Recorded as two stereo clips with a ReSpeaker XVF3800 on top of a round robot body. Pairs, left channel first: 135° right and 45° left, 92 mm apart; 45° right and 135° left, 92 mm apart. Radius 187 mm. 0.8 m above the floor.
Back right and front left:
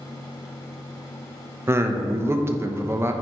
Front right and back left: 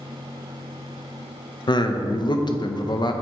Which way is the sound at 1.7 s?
15° right.